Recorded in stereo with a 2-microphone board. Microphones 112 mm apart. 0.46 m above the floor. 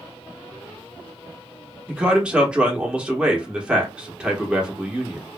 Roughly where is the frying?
No frying in this recording.